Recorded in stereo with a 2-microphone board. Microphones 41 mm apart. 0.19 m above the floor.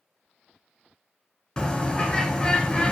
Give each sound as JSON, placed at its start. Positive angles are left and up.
{"t": 1.6, "sound": "a bird", "side_deg": 20, "distance_m": 0.8}